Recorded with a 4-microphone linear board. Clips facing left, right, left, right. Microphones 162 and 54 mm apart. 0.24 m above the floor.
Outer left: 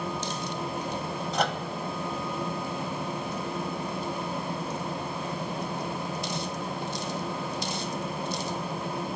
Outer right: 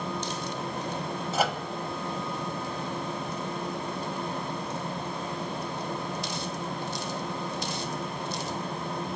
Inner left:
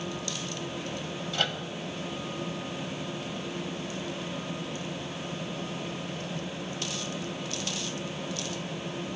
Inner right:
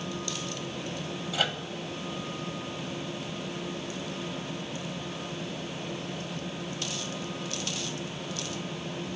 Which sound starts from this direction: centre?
A microwave, at 1.3 s.